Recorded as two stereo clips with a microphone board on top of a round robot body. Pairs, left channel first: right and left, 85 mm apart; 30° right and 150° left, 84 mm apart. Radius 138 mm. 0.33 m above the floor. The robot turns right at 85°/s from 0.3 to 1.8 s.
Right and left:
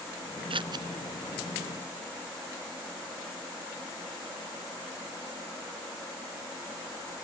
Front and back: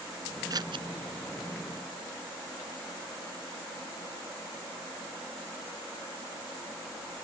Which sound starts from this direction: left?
Scissors, at 0.5 s.